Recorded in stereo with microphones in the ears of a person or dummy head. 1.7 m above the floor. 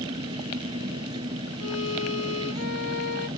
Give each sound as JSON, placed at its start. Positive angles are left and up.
{"t": 0.0, "sound": "an engine running", "side_deg": -25}
{"t": 1.6, "sound": "a violin", "side_deg": 85}